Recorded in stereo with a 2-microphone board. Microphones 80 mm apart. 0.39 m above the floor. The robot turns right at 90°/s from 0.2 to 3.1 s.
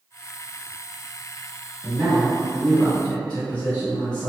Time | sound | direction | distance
1.8 | a man speaking | 30° right (ahead or behind) | 1.1 m